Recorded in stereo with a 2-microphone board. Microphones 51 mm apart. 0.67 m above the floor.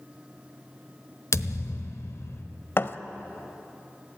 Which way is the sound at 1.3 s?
90° left.